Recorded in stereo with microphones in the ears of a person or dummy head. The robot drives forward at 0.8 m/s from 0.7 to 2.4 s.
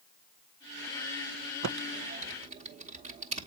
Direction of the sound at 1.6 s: 65° right (ahead or behind).